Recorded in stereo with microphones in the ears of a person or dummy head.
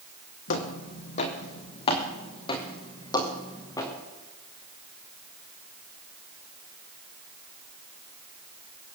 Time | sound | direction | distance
0.5 | footsteps | 55° left (ahead or behind) | 2.5 m